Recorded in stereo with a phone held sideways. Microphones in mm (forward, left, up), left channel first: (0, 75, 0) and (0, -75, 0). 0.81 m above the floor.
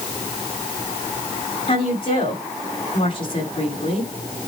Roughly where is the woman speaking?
Left.